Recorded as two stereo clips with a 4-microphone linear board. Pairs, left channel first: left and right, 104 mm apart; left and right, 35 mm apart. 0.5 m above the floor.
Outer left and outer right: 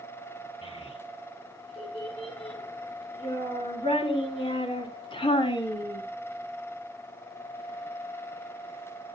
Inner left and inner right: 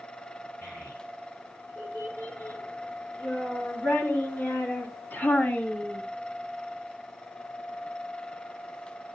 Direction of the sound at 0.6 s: 60° left (ahead or behind).